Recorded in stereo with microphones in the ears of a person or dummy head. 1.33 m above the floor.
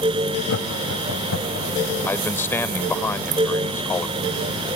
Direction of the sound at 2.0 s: 15° left (ahead or behind).